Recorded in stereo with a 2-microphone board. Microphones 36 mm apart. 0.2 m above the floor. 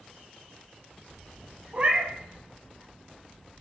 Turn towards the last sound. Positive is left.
turn(degrees=-35)  # may be behind; listen again after turning